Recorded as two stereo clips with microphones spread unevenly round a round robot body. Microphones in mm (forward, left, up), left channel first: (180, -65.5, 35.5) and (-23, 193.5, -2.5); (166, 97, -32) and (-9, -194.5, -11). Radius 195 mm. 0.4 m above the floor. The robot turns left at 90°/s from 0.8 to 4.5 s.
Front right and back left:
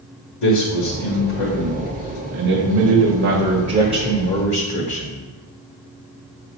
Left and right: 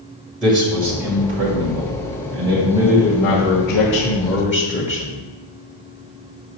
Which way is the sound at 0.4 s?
30° right.